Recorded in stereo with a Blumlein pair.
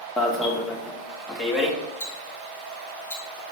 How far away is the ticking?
About 2 m.